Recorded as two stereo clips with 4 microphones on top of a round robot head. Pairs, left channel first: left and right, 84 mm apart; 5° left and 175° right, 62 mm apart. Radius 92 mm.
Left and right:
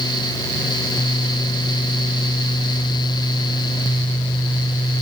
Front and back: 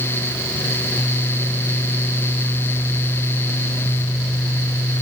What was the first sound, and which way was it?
Only background noise.